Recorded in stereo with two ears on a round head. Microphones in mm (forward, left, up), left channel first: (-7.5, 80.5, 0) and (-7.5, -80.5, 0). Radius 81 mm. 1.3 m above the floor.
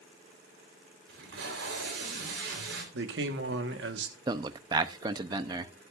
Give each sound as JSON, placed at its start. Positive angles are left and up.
{"t": 1.1, "sound": "tape being pulled", "side_deg": -70, "distance_m": 4.0}
{"t": 2.9, "sound": "a man speaking", "side_deg": -65, "distance_m": 1.3}
{"t": 4.3, "sound": "a man speaking", "side_deg": -20, "distance_m": 0.6}